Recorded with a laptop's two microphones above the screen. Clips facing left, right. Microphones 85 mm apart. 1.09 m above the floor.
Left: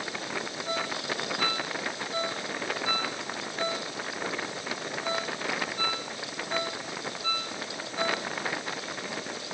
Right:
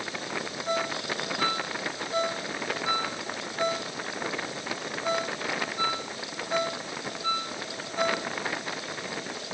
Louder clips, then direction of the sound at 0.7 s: Right 4 dB; 15° right (ahead or behind).